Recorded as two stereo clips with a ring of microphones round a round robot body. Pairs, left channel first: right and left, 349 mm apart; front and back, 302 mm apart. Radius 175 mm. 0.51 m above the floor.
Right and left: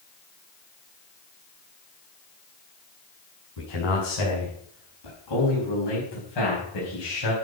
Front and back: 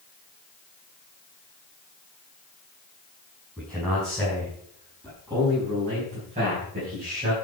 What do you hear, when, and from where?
3.6 s a man speaking: 95° right, 5.5 m; by 7.3 s 115° right, 4 m